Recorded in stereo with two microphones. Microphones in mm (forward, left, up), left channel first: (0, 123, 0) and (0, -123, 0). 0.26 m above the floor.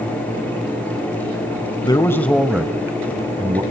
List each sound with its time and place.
1.8 s a man speaking: 15° left (ahead or behind), 1.2 m; by 3.6 s 20° right (ahead or behind), 1.8 m